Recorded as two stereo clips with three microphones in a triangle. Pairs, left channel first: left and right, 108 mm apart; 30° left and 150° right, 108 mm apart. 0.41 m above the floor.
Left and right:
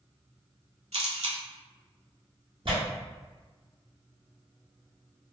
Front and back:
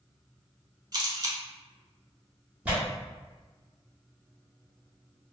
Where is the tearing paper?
75° right, 1.2 m.